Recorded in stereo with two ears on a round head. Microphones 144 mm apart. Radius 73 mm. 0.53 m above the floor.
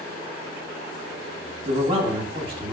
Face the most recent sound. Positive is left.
turn(degrees=-30)  # may be behind; listen again after turning